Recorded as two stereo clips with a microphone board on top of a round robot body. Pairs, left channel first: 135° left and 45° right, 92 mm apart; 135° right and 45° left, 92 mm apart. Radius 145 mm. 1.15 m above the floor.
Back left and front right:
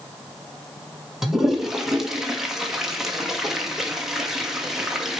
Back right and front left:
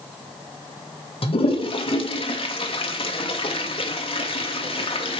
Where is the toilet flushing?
130° right, 1.7 m.